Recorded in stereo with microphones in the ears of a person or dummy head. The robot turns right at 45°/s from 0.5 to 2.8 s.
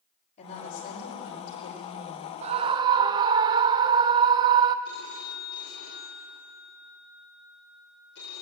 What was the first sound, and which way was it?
A woman speaking, 40° left.